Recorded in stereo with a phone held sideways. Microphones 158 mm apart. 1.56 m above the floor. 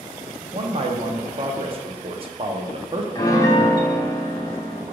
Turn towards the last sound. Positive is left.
turn(degrees=20)  # may be behind; listen again after turning